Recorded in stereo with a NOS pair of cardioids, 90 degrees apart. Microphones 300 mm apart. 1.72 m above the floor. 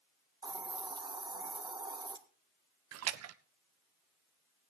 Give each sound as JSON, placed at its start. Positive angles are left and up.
{"t": 0.4, "sound": "a hiss", "azimuth_deg": -15, "distance_m": 1.5}
{"t": 2.9, "sound": "a splash", "azimuth_deg": -60, "distance_m": 0.9}